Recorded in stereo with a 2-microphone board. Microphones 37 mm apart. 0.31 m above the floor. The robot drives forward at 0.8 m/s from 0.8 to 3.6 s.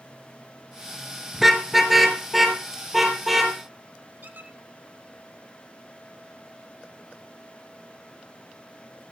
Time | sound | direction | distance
1.3 | a car horn | 5° right (ahead or behind) | 2 m
4.2 | a squeak | 60° right (ahead or behind) | 1.6 m